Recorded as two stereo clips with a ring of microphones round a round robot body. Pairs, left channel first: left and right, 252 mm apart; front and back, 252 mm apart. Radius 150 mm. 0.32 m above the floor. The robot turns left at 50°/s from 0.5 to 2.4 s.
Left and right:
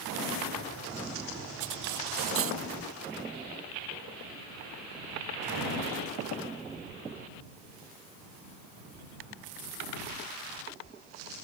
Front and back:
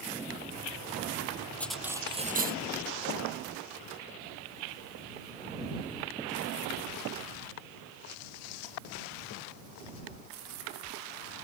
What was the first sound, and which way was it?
Cutlery clinking, 85° right.